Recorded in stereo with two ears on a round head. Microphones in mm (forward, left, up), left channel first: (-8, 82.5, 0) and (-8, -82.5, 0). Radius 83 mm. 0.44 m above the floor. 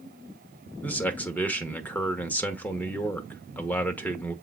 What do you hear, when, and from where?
0.8 s a man speaking: 10° left (ahead or behind), 1.2 m